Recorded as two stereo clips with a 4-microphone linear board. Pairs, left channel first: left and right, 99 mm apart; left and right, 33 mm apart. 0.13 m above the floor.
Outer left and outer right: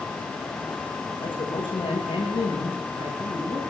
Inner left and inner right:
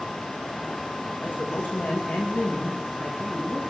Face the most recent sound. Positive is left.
turn(degrees=60)  # may be behind; listen again after turning